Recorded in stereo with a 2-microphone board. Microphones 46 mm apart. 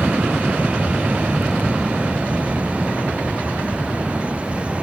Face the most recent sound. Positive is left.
turn(degrees=-20)  # may be behind; listen again after turning